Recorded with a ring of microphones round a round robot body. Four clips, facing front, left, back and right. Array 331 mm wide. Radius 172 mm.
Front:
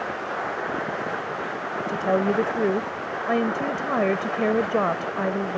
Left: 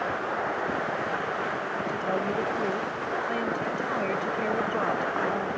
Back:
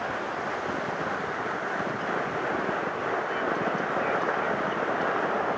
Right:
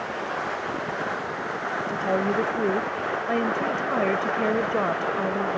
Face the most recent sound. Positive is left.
turn(degrees=-20)